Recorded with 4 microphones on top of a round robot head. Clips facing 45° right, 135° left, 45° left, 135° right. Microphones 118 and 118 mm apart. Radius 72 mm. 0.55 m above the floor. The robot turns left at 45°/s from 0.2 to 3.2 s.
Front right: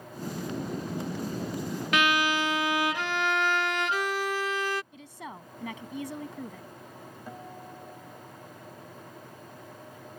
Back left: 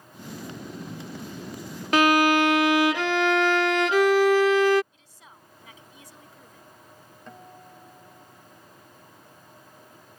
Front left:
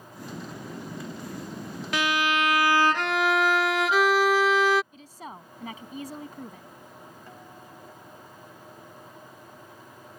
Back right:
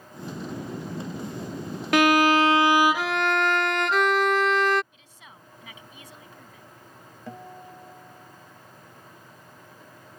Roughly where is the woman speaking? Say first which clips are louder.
Front right 12 dB, front left 10 dB; ahead.